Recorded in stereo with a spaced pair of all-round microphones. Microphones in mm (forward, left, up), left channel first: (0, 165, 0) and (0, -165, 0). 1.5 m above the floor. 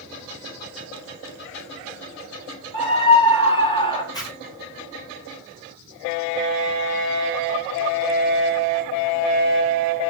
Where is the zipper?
10° left (ahead or behind), 6.5 m.